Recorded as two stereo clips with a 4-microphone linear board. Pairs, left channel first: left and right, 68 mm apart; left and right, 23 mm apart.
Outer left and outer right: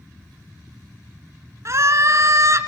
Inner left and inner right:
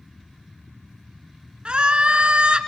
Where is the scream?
50° right (ahead or behind), 3 m.